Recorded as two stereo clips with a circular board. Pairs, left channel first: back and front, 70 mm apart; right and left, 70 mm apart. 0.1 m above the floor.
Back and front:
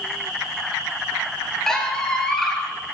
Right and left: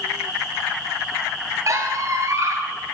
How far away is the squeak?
About 1.2 m.